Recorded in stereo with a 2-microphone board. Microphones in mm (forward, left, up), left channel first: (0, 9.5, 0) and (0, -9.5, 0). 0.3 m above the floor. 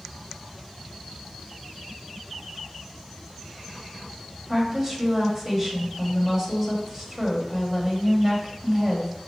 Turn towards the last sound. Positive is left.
turn(degrees=-25)  # may be behind; listen again after turning